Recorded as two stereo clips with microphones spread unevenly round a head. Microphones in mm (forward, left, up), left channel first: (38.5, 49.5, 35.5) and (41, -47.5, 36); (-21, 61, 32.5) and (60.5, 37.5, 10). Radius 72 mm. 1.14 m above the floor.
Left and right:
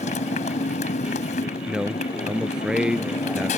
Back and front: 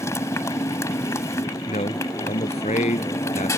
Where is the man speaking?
175° right.